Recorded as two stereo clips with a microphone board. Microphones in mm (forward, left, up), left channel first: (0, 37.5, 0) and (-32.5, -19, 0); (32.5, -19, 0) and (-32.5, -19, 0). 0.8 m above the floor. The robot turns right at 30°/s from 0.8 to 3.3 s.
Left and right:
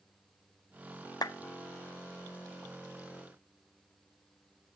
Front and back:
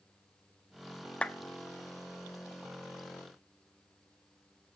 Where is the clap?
70° left, 0.6 m; by 1.4 s 75° left, 0.6 m.